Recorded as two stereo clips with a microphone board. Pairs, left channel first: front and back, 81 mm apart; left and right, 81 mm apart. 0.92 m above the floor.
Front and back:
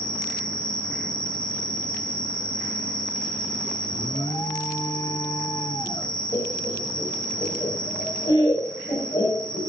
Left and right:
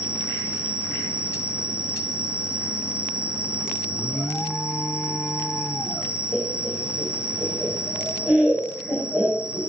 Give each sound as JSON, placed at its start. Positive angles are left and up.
{"t": 0.0, "sound": "an insect", "azimuth_deg": -75, "distance_m": 3.5}
{"t": 3.9, "sound": "an alarm", "azimuth_deg": 15, "distance_m": 1.6}
{"t": 6.3, "sound": "laughter", "azimuth_deg": -25, "distance_m": 5.0}